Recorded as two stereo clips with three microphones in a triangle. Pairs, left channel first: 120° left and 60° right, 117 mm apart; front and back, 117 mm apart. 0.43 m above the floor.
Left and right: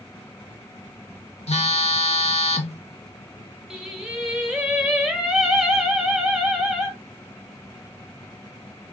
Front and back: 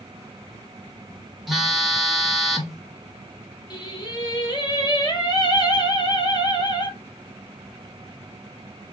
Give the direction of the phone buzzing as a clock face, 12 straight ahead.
9 o'clock.